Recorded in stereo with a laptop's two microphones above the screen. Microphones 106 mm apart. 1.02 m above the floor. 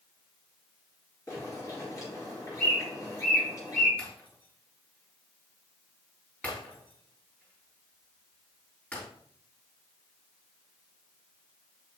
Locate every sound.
1.3 s a bird: 35° left (ahead or behind), 3.5 m
4.0 s breaking glass: 20° left (ahead or behind), 4.5 m